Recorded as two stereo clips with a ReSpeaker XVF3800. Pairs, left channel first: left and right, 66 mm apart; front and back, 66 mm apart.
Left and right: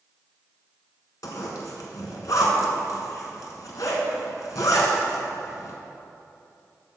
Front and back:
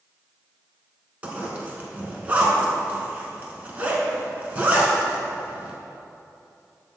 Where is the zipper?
115° left, 1.3 m.